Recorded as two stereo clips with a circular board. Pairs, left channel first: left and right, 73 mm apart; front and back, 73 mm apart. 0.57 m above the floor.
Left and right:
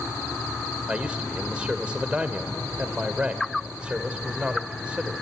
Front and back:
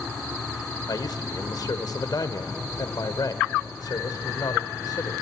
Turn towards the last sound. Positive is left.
turn(degrees=-15)